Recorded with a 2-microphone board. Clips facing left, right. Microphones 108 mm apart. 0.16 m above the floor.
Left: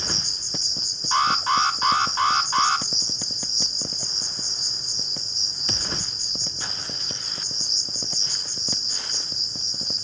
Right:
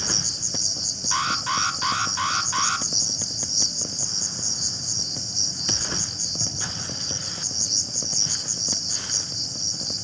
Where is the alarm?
35° left (ahead or behind), 1.6 m.